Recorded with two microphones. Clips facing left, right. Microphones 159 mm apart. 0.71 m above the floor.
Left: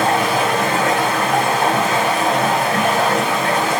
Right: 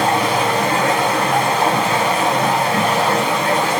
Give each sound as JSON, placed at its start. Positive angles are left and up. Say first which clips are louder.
{"t": 0.0, "sound": "running water", "louder": "even", "side_deg": -40, "distance_m": 2.0}